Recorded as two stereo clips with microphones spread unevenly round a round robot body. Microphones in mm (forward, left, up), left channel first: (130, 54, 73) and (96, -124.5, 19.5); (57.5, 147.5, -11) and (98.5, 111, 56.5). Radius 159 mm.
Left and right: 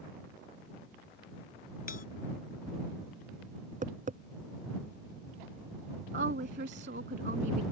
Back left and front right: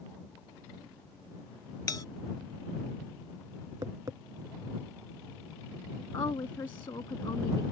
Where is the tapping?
50° right.